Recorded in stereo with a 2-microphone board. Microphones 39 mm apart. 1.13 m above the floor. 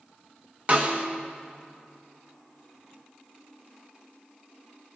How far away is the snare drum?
About 1.4 m.